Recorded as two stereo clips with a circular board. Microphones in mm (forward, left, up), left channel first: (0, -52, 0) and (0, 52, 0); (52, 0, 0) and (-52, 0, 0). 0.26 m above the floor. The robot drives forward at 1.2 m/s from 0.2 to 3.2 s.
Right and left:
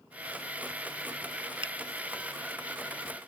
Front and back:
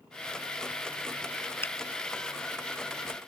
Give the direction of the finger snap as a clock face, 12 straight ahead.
10 o'clock.